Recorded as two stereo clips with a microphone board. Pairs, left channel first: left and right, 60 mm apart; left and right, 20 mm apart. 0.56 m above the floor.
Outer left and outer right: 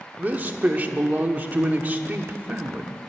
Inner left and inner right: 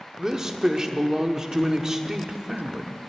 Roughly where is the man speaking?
Right.